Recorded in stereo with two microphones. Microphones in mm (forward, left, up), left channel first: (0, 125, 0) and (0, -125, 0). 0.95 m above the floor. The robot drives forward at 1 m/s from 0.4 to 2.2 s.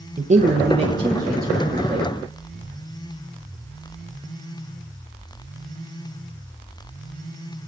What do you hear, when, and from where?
0.2 s a man speaking: 30° right (ahead or behind), 0.7 m; by 2.1 s 10° right (ahead or behind), 2 m